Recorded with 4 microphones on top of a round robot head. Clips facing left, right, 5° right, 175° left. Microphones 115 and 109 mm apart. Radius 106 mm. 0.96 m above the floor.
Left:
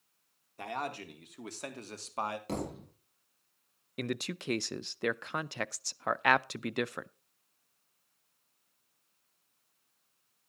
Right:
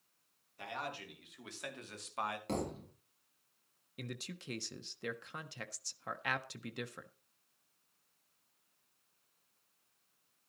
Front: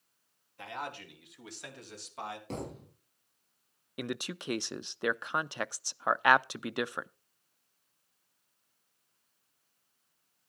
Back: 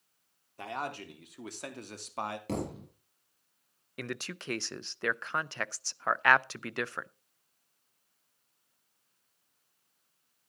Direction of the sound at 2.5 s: 175° left.